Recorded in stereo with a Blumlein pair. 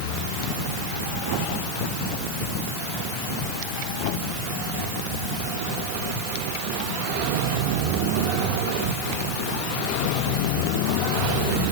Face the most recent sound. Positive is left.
No sound to turn to.